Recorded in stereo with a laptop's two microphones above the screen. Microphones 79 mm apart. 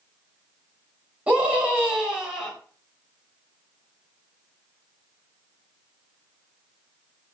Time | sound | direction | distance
1.3 | a scream | 20° right (ahead or behind) | 4 m